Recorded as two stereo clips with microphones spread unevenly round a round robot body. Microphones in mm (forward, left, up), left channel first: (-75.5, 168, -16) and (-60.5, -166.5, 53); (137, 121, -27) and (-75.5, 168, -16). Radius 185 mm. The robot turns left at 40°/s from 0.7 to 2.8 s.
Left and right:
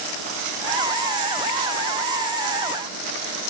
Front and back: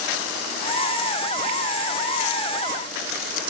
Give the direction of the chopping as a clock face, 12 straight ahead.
I don't hear chopping.